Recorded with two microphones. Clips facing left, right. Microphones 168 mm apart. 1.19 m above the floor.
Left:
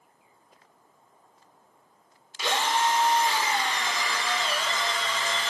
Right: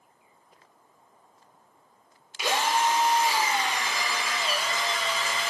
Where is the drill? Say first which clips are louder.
Right 1 dB; 10° right (ahead or behind), 0.5 m.